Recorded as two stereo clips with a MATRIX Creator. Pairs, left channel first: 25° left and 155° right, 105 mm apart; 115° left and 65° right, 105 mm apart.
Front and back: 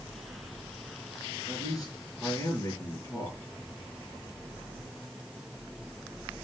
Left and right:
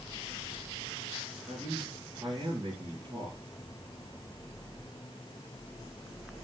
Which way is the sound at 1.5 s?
30° right.